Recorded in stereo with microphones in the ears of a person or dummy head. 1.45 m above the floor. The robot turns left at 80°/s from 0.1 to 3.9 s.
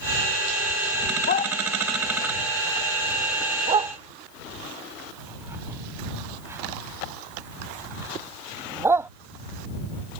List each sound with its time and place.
1.3 s a dog barking: 45° left (ahead or behind); by 9.1 s 20° right (ahead or behind)